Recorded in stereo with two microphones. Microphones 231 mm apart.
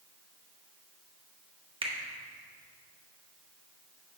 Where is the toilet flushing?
I don't hear a toilet flushing.